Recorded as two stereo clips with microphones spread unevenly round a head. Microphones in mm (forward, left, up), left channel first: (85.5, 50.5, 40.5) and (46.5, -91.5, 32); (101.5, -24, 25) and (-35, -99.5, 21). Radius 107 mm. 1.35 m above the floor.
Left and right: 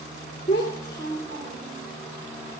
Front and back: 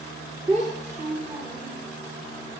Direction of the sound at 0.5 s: 145° left.